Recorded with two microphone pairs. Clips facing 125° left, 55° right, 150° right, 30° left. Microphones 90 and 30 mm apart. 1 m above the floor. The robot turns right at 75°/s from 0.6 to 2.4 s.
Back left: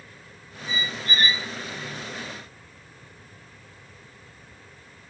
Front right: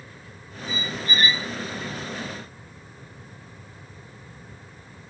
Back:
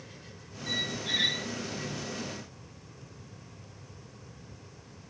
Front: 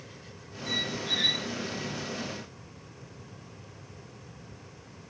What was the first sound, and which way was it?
A squeak, 135° left.